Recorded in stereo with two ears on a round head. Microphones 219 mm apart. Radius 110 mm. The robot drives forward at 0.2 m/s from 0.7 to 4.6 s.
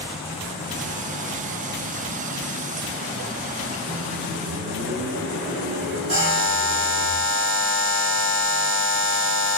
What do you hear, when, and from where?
3.9 s a microwave: 80° right, 1.2 m; by 7.1 s 85° right, 1.2 m
6.1 s a buzzer: 40° right (ahead or behind), 2.0 m